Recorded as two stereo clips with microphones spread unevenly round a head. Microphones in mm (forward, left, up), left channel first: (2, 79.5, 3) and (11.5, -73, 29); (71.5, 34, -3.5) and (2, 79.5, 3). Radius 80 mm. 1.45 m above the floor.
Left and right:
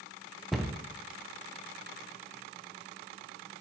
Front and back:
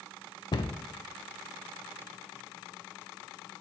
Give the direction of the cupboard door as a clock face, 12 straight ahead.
12 o'clock.